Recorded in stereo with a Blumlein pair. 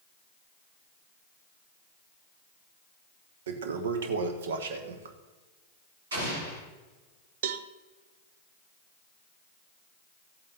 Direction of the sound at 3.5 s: 60° right.